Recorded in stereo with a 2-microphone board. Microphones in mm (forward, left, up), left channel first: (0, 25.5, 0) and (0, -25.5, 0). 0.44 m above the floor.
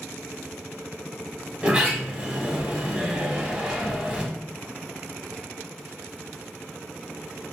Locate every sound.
1.6 s a sliding door: 25° right (ahead or behind), 0.6 m